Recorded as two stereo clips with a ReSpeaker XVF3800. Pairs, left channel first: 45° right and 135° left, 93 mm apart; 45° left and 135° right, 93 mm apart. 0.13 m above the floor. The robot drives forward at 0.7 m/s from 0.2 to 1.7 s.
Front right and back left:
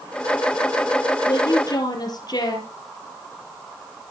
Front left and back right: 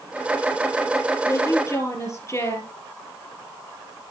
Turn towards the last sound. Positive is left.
turn(degrees=-10)